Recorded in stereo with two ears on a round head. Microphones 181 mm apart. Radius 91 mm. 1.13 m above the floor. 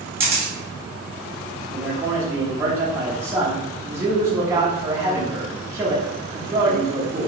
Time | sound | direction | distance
0.2 | a camera shutter | 15° right (ahead or behind) | 1.1 m
1.7 | a man speaking | 15° right (ahead or behind) | 0.9 m